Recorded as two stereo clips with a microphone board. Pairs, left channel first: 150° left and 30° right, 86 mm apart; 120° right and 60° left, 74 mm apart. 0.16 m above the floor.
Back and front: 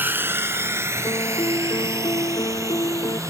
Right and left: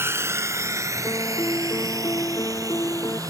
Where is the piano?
170° right.